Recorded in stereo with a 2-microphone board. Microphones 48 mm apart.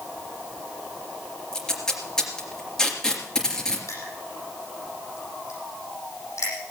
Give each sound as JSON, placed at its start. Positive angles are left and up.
{"t": 1.5, "sound": "tape being pulled", "side_deg": 10, "distance_m": 3.0}
{"t": 3.9, "sound": "crushing", "side_deg": 65, "distance_m": 8.5}